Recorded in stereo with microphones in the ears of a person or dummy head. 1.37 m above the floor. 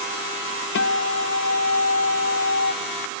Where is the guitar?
60° left (ahead or behind), 1.1 m.